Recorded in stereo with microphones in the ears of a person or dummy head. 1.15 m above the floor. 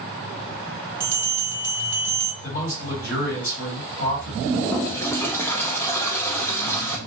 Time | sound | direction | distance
1.0 | a bell | 10° right (ahead or behind) | 0.6 m
2.4 | a man speaking | 45° left (ahead or behind) | 2 m
4.4 | a toilet flushing | 10° left (ahead or behind) | 0.5 m